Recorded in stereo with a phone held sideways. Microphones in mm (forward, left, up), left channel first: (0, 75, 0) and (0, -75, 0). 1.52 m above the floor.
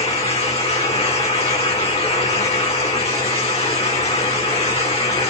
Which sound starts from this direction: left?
A fan, at 0.0 s.